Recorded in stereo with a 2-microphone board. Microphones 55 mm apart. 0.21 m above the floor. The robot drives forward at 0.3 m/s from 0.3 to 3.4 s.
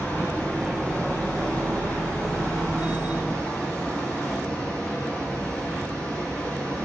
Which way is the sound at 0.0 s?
15° left (ahead or behind).